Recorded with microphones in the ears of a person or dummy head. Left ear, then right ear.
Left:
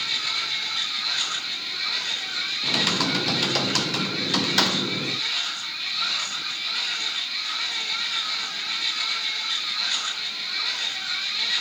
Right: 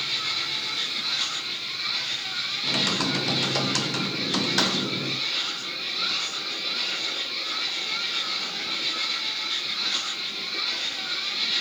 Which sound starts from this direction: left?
A machine running, at 0.0 s.